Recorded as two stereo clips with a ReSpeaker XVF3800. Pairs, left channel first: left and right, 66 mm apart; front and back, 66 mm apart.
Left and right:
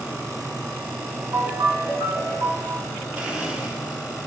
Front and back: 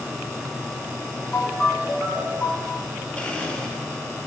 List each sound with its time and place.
1.3 s a ringtone: 70° right, 2.5 m
3.2 s a blender: 50° right, 1.0 m